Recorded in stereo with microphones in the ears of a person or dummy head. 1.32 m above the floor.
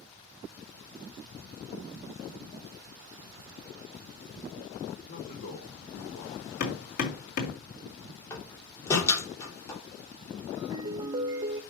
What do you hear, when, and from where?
5.1 s a man speaking: 50° left (ahead or behind), 2 m
6.6 s hammering: 55° left (ahead or behind), 2 m
8.3 s a door slam: 15° left (ahead or behind), 2.5 m
10.6 s a ringtone: 20° right (ahead or behind), 0.7 m